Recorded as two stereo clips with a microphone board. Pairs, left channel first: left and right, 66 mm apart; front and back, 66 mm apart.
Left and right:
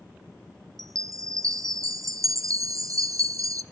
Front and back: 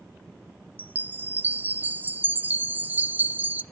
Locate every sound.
0.8 s a chime: 120° right, 0.7 m